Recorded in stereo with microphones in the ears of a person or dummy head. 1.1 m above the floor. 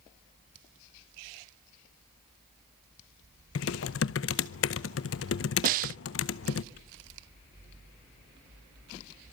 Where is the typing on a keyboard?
60° left (ahead or behind), 0.7 m.